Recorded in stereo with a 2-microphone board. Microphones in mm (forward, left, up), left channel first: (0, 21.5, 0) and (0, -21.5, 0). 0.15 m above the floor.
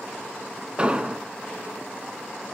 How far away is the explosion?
About 0.5 m.